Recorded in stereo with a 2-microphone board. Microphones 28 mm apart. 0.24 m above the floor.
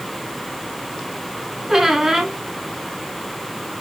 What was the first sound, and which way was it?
A squeak, 15° right (ahead or behind).